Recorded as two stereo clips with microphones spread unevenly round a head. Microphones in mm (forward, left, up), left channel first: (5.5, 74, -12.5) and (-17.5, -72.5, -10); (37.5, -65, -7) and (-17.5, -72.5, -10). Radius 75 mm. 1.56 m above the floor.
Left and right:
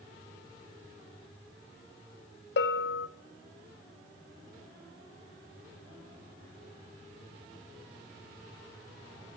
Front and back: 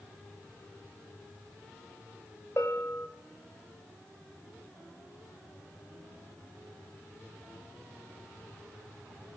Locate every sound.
2.6 s a bell: 75° left, 0.6 m